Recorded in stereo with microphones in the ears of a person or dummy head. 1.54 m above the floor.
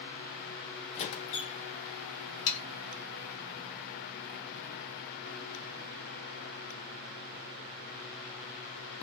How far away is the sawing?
About 1.5 m.